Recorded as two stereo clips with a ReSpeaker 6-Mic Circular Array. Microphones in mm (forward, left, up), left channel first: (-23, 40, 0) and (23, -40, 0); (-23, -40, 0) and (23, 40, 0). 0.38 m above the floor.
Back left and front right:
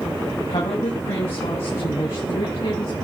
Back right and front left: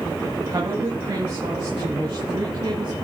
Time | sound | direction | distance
0.5 | a woman speaking | 110° left | 3 m